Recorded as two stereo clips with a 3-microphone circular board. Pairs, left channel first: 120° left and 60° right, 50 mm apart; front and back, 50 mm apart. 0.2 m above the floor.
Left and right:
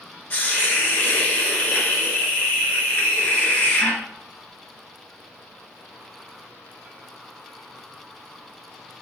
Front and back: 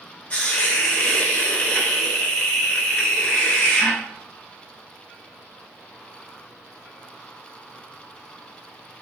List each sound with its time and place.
0.3 s a hiss: 60° left, 0.6 m